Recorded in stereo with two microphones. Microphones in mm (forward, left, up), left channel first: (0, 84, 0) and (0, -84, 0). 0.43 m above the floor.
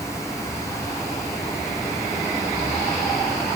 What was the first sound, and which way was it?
Only background noise.